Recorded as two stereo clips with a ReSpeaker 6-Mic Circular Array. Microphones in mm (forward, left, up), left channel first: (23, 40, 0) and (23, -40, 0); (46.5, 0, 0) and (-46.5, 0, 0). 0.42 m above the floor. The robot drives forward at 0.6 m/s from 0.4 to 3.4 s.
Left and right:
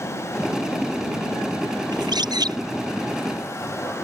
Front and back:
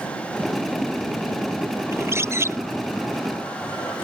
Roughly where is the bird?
Behind right.